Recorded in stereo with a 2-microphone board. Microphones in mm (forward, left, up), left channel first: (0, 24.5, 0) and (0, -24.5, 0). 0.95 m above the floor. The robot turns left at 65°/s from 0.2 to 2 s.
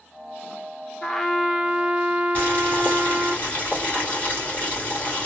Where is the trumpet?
20° left, 0.6 m; by 3.4 s 45° right, 0.6 m.